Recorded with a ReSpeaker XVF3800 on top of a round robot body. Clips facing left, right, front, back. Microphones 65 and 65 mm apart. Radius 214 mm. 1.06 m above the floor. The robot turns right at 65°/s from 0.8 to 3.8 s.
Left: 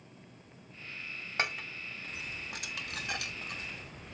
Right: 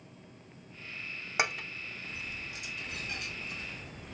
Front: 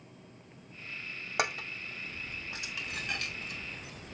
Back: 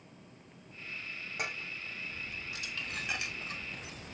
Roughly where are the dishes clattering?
Ahead.